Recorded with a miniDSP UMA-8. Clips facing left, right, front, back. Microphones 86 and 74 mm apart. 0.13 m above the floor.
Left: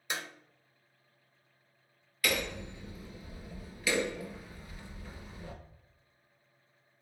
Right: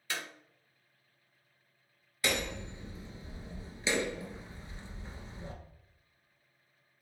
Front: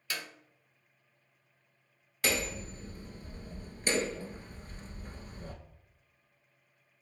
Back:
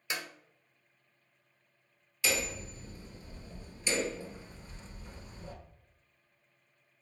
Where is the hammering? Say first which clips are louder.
Left 1 dB, front 1 dB; 30° right, 1.6 m.